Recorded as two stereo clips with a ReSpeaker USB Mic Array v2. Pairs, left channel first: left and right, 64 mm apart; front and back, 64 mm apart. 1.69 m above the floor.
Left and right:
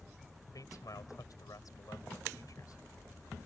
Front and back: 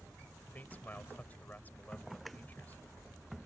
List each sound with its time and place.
0.5 s a man speaking: 65° left